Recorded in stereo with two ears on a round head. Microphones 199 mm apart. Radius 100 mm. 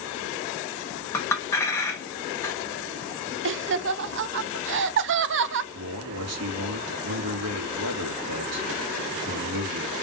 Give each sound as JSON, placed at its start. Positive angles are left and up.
{"t": 1.1, "sound": "a clink", "side_deg": 10, "distance_m": 1.1}
{"t": 3.5, "sound": "laughter", "side_deg": -55, "distance_m": 0.5}
{"t": 5.7, "sound": "a man speaking", "side_deg": -75, "distance_m": 1.8}